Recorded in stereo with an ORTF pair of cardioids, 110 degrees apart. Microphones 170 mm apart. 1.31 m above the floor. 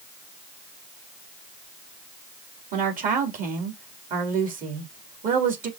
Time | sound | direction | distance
2.7 | a woman speaking | 50° right | 3 m